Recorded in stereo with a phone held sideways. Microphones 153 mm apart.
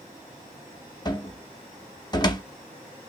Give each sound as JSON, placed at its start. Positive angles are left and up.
{"t": 1.1, "sound": "a cupboard door", "side_deg": 25, "distance_m": 0.7}